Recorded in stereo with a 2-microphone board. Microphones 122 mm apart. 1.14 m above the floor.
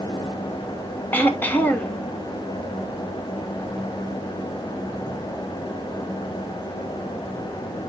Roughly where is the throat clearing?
Centre.